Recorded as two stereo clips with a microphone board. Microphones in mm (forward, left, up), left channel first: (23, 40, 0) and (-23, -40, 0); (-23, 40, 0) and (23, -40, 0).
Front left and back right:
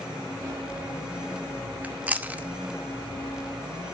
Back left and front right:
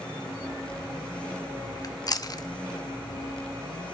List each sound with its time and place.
1.8 s chewing: 165° left, 0.9 m